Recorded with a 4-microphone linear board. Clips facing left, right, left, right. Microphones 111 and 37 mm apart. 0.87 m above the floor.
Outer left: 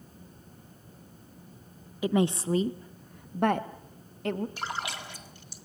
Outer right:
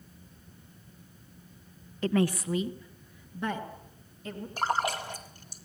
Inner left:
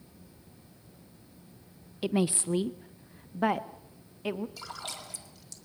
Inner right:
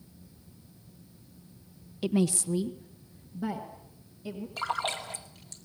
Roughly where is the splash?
Right.